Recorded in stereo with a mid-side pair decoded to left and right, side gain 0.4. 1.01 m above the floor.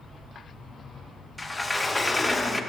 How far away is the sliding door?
About 0.6 m.